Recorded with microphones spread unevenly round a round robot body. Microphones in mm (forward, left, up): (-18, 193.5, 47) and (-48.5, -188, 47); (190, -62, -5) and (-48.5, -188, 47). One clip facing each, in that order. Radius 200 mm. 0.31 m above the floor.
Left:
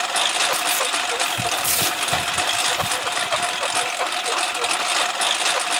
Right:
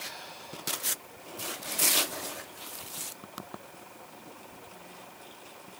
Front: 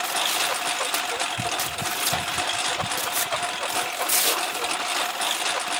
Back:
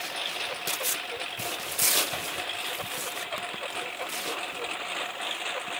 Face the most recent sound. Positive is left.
turn(degrees=85)